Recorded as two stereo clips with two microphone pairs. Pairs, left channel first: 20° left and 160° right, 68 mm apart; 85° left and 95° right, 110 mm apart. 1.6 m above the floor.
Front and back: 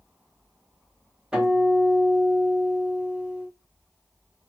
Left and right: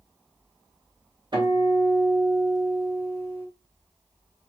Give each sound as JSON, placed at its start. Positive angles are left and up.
{"t": 1.3, "sound": "a guitar", "azimuth_deg": -90, "distance_m": 1.8}